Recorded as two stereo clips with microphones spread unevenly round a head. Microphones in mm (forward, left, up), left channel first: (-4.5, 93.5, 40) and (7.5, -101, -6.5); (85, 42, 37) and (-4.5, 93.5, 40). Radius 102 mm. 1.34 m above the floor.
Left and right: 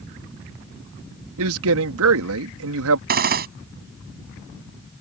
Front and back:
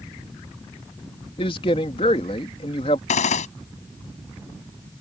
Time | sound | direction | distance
1.4 | a man speaking | 85° right | ?
3.1 | a gunshot | 40° right | ?